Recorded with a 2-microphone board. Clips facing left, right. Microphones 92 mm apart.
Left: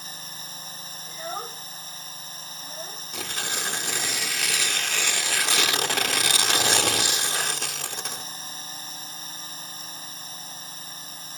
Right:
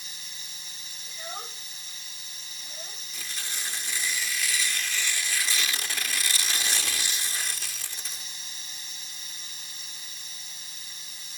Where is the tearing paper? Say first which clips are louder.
Left 8 dB; 65° left (ahead or behind).